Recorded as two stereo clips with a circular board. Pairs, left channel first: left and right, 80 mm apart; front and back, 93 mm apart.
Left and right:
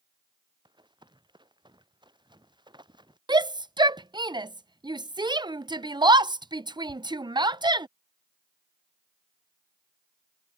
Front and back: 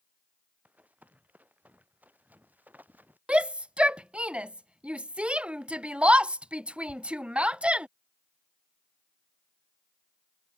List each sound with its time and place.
0.7 s running footsteps: 105° right; by 3.2 s 110° right
3.3 s a shout: 105° right